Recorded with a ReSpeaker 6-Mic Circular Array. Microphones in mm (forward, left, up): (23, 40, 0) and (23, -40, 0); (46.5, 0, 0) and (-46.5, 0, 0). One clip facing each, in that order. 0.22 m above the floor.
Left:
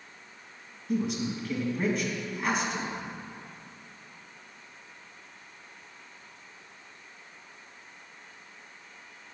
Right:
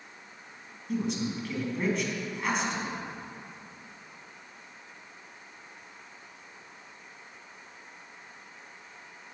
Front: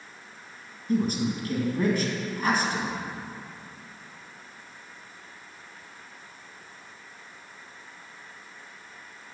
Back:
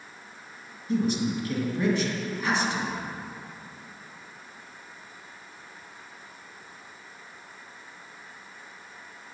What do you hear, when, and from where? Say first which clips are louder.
0.9 s a woman speaking: left 1 dB, even; 5° left, 1.9 m